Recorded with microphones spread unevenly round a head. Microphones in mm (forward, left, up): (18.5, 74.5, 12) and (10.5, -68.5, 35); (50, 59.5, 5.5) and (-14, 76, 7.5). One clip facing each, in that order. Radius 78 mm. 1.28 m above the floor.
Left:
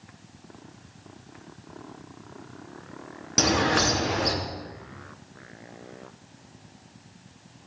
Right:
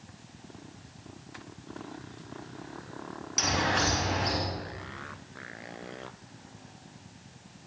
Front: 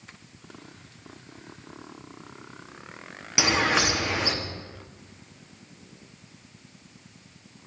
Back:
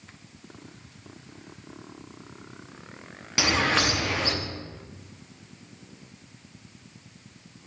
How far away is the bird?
About 3 m.